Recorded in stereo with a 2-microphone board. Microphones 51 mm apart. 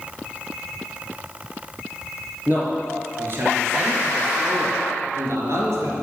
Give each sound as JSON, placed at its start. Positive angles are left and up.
{"t": 2.5, "sound": "a man speaking", "side_deg": -40, "distance_m": 4.0}